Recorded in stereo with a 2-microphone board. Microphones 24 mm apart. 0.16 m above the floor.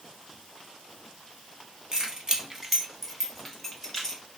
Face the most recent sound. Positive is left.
turn(degrees=20)  # may be behind; listen again after turning